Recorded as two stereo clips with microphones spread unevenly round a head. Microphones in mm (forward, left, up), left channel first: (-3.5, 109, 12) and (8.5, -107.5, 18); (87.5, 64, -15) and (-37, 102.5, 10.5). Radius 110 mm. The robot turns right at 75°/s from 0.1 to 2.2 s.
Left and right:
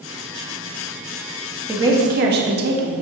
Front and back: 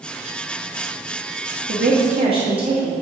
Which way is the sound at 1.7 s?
170° right.